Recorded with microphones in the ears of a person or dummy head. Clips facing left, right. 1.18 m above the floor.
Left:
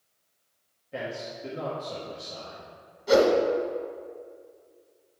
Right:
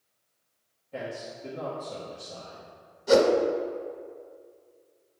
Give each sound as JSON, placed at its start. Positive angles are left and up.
{"t": 0.9, "sound": "a man speaking", "side_deg": 20, "distance_m": 1.1}
{"t": 3.1, "sound": "a whoosh", "side_deg": -20, "distance_m": 0.8}